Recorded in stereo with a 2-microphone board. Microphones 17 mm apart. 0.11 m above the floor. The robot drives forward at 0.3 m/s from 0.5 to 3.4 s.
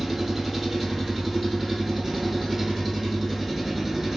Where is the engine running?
5° right (ahead or behind), 1.4 m.